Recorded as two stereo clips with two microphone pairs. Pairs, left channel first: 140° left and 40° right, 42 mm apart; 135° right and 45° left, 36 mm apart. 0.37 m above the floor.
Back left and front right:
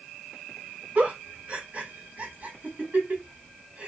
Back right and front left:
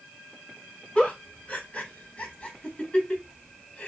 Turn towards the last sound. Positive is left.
turn(degrees=-90)